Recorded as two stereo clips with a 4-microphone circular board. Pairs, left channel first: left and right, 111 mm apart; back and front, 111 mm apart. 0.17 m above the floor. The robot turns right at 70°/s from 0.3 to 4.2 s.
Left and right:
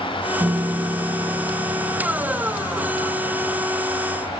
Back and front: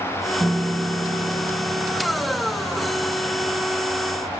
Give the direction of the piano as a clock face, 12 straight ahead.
2 o'clock.